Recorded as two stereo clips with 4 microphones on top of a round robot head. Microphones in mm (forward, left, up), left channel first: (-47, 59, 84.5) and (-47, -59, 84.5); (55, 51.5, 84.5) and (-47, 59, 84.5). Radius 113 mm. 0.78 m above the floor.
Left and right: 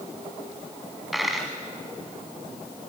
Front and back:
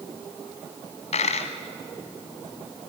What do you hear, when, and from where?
1.1 s a dropped coin: straight ahead, 1.1 m